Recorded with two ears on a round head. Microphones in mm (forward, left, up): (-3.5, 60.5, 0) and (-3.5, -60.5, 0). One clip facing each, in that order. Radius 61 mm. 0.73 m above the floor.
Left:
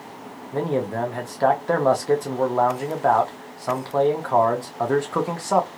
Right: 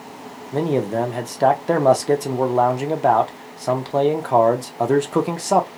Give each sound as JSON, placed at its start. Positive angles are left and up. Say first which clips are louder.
{"t": 0.5, "sound": "a man speaking", "louder": "right 4 dB", "side_deg": -25, "distance_m": 0.7}